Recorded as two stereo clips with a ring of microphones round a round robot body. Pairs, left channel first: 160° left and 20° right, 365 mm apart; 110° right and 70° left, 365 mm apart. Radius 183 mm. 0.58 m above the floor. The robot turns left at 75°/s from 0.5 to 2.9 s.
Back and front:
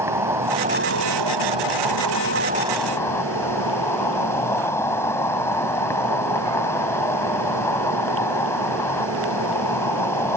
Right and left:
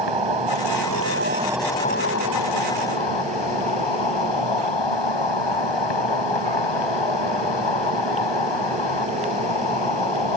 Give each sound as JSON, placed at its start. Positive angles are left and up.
{"t": 0.0, "sound": "an insect", "azimuth_deg": 60}